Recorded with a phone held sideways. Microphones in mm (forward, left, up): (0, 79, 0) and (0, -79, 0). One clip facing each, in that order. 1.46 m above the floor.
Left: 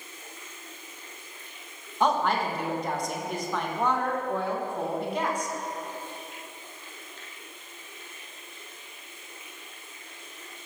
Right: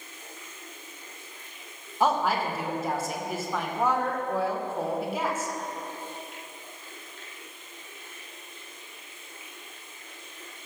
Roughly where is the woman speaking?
Centre.